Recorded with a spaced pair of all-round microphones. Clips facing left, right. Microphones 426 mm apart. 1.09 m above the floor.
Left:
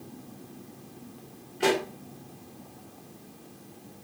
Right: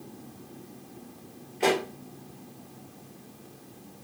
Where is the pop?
25° left (ahead or behind), 1.0 m.